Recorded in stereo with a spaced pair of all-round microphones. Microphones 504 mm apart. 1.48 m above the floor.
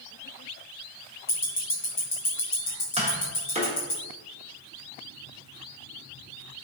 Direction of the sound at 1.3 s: 75° left (ahead or behind).